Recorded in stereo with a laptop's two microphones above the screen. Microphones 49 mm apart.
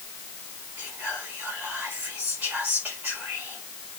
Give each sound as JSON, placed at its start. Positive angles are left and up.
{"t": 0.8, "sound": "whispering", "side_deg": -35, "distance_m": 4.0}